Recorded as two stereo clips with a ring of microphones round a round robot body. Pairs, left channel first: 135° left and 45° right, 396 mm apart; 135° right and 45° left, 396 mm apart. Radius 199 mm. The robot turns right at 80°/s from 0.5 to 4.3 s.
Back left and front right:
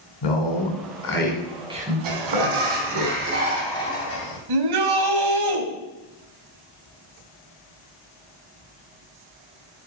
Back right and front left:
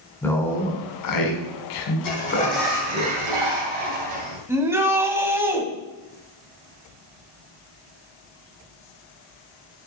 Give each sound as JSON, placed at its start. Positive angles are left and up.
{"t": 0.2, "sound": "a man speaking", "azimuth_deg": 140, "distance_m": 3.0}
{"t": 2.0, "sound": "a sliding door", "azimuth_deg": -85, "distance_m": 3.0}
{"t": 4.5, "sound": "a shout", "azimuth_deg": -40, "distance_m": 1.9}